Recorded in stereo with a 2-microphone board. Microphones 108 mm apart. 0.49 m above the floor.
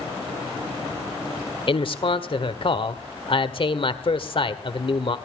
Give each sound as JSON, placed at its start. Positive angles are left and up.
{"t": 1.7, "sound": "a man speaking", "side_deg": 55, "distance_m": 1.4}